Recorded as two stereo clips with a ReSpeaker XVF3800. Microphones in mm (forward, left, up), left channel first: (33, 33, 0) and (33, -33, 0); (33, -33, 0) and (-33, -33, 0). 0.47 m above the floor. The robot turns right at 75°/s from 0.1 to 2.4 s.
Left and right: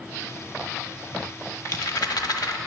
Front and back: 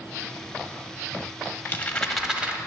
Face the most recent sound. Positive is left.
turn(degrees=110)